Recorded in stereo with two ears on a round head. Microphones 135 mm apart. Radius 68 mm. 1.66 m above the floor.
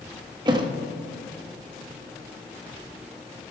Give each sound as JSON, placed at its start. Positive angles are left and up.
{"t": 0.5, "sound": "a thud", "side_deg": -30, "distance_m": 1.0}